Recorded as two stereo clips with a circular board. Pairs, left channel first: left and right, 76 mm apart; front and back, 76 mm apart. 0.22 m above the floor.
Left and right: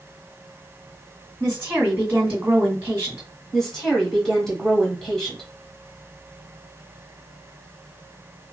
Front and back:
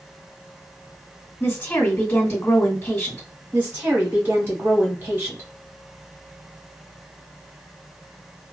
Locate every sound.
1.4 s a woman speaking: 30° right, 2 m
3.5 s a woman speaking: 170° left, 1.1 m